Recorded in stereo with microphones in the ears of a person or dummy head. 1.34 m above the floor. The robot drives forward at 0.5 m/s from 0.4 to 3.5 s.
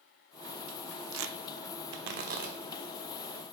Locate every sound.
1.1 s tearing paper: 65° right (ahead or behind), 0.8 m; by 2.6 s 35° right (ahead or behind), 1.3 m